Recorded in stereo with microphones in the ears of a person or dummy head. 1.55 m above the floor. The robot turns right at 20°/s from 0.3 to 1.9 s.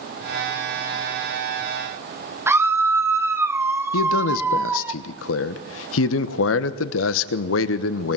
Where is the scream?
15° right (ahead or behind), 1.5 m.